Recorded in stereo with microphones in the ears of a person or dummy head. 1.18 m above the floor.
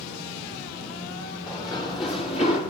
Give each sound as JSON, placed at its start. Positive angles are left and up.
{"t": 1.5, "sound": "running footsteps", "side_deg": 20, "distance_m": 6.0}